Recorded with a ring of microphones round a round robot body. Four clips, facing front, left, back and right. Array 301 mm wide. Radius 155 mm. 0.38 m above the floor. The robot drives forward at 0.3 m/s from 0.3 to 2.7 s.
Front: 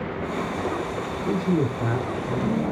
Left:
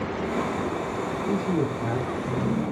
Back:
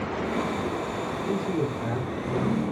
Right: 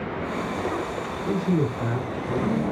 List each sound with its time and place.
1.2 s a man speaking: 10° left, 1.6 m; by 2.6 s 20° left, 1.4 m